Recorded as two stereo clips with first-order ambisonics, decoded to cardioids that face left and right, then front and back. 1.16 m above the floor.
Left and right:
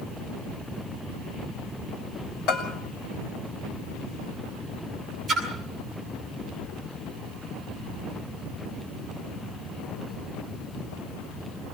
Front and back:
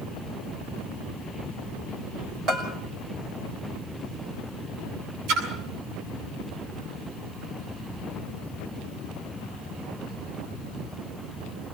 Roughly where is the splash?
Behind.